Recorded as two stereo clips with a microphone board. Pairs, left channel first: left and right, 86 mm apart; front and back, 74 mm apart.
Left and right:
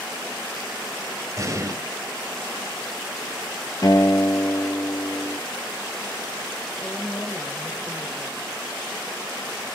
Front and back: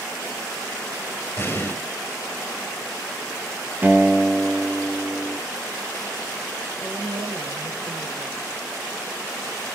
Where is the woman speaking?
160° left, 2 m.